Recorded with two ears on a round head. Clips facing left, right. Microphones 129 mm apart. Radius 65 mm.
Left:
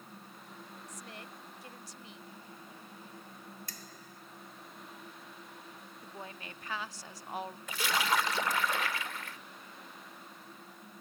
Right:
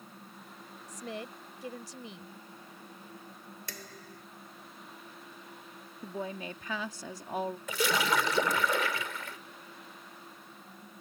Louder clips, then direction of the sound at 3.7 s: Right 4 dB; 55° right (ahead or behind).